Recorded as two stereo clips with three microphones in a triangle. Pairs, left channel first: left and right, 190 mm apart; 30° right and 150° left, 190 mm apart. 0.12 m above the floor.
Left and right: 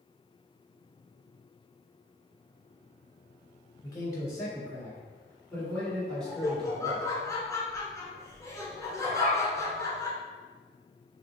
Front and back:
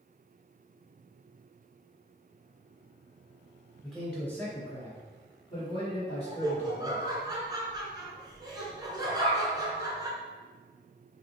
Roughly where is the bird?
Ahead right.